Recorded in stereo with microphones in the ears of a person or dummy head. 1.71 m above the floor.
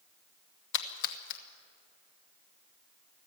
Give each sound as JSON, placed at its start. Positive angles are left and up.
{"t": 0.7, "sound": "a splash", "side_deg": 55, "distance_m": 1.2}